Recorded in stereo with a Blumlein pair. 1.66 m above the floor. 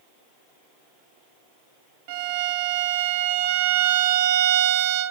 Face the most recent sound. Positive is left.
turn(degrees=-50)